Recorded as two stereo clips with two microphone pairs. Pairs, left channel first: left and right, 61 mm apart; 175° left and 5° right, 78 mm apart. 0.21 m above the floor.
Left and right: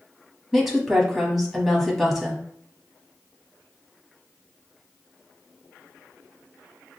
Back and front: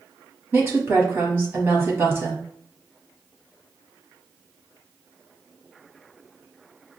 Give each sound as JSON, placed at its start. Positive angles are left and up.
{"t": 0.5, "sound": "a woman speaking", "azimuth_deg": -10, "distance_m": 1.1}